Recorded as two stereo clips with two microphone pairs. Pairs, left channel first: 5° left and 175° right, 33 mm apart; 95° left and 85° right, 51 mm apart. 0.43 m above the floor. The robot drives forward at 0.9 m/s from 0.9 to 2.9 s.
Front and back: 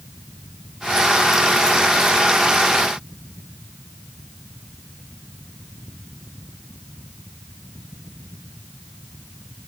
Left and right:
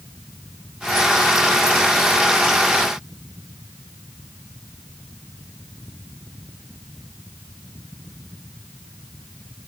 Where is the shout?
No shout in this recording.